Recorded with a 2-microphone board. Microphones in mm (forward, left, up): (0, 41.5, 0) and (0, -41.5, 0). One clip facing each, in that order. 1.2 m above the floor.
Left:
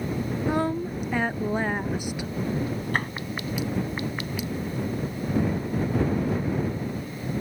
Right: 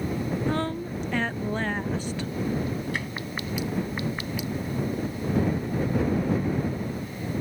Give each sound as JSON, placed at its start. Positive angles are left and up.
{"t": 0.5, "sound": "a woman speaking", "side_deg": 15}
{"t": 2.9, "sound": "tapping", "side_deg": 50}